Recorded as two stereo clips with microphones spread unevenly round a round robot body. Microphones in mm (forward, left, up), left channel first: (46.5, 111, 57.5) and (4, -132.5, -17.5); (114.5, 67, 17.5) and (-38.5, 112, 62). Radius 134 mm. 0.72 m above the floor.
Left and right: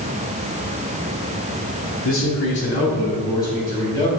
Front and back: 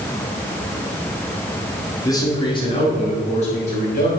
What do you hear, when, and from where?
2.0 s a man speaking: 40° left, 1.8 m; by 4.1 s 20° left, 4 m